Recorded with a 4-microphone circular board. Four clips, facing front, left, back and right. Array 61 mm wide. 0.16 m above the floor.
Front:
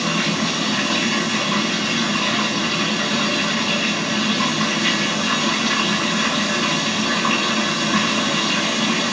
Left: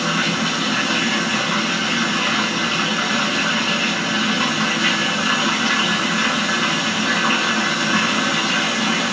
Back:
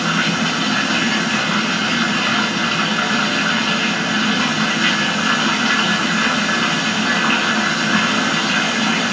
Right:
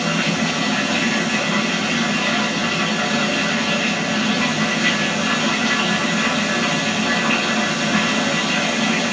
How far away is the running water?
About 1.6 m.